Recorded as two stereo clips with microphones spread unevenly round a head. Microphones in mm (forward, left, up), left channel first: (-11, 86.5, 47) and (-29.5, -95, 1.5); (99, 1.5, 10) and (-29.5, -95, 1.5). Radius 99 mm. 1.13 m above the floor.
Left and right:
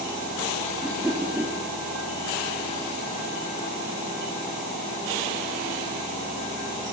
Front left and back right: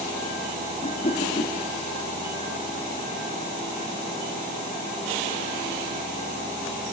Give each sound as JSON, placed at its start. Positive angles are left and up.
{"t": 0.8, "sound": "a whoosh", "azimuth_deg": -15, "distance_m": 2.5}